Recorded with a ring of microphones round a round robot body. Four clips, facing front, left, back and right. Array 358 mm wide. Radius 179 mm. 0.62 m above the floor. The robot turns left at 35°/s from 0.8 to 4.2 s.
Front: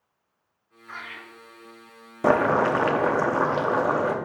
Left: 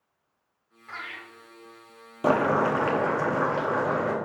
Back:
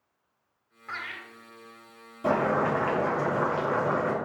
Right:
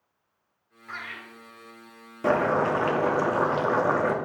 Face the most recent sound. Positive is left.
turn(degrees=-50)